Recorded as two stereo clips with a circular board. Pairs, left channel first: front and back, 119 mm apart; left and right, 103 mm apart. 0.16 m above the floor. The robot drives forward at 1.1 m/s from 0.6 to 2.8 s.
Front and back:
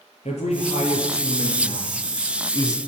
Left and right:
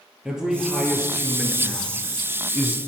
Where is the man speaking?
5° right, 3 m; by 2.8 s 30° right, 1.3 m.